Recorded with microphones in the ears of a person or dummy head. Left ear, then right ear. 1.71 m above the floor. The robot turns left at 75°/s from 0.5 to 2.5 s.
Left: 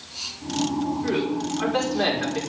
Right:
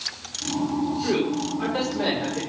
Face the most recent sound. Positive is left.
turn(degrees=90)